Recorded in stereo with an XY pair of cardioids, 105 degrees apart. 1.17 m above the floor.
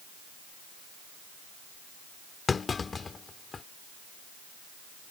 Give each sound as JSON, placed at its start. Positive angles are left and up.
{"t": 2.5, "sound": "a clunk", "azimuth_deg": 35}